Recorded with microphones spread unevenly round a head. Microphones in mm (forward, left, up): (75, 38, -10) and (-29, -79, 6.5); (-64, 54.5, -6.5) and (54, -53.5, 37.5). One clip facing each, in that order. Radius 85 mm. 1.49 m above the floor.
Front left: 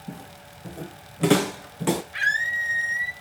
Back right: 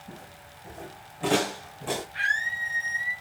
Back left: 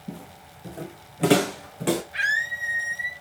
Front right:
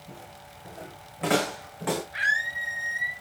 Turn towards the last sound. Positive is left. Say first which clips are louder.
# front left 3 dB, back left 1 dB
turn(degrees=80)